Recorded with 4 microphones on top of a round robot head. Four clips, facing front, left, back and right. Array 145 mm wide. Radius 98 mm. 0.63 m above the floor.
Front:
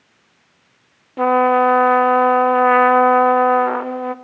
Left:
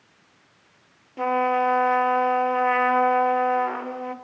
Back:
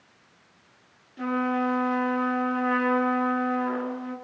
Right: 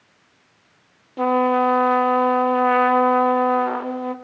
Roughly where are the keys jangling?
No keys jangling in this recording.